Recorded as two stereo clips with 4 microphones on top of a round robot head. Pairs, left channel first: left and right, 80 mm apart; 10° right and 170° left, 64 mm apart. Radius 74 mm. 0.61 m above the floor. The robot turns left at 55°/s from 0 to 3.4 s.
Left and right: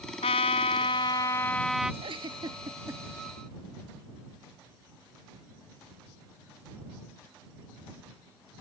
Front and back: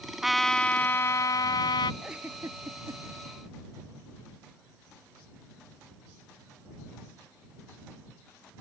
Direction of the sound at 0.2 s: 85° left.